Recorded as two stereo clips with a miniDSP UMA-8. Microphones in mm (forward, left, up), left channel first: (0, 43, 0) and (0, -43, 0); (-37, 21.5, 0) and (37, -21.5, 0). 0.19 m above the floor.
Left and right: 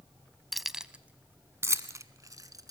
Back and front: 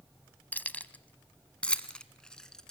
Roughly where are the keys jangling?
Behind.